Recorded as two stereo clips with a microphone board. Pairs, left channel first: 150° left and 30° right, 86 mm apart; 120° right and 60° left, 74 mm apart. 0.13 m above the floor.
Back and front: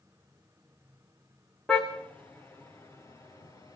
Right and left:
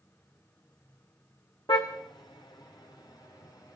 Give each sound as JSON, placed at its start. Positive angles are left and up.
{"t": 1.7, "sound": "a car horn", "azimuth_deg": -130, "distance_m": 4.0}